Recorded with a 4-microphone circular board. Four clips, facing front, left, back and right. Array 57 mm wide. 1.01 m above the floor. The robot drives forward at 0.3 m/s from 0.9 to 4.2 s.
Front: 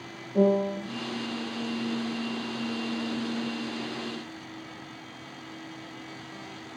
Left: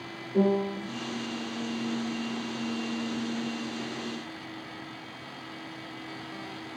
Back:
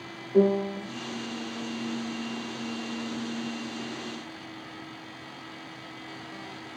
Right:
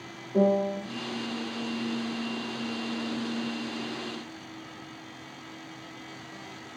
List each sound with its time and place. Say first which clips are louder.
0.3 s a piano: right 2 dB, back 1 dB; 155° right, 1.3 m